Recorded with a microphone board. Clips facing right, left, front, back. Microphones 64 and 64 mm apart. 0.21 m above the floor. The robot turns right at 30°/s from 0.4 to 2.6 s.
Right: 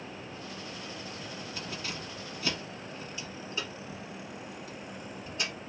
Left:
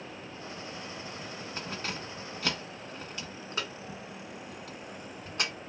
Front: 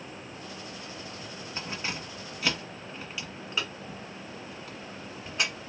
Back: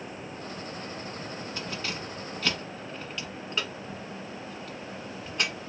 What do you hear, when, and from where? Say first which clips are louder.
1.6 s keys jangling: left 3 dB, front 2 dB; 50° left, 1.2 m; by 5.7 s 80° left, 1.2 m